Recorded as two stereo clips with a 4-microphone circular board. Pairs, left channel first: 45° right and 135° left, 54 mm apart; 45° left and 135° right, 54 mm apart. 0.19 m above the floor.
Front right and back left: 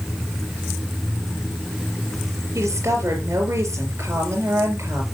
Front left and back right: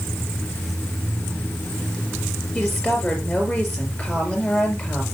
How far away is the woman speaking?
About 5 m.